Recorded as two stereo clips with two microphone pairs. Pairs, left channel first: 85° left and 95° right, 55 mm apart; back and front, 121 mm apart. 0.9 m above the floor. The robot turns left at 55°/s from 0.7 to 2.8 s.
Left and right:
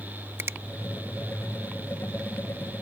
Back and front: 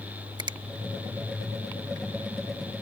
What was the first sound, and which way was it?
A finger snap, 50° right.